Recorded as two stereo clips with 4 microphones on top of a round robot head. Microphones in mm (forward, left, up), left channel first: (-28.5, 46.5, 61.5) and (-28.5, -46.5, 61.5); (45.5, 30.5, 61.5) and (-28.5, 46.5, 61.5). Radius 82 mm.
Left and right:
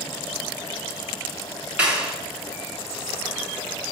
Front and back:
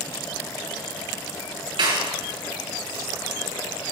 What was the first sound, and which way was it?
A clap, 170° right.